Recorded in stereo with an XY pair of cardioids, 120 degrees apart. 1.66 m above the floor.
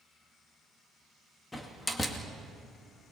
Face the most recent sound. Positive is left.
turn(degrees=20)